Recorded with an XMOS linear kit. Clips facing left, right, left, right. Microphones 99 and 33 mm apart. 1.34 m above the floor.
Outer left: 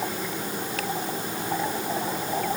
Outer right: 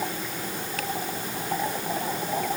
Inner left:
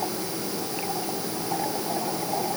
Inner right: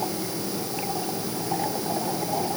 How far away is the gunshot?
I don't hear a gunshot.